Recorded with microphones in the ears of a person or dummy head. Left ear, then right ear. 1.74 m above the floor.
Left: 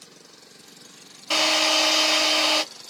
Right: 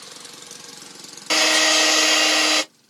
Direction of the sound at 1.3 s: 65° right (ahead or behind).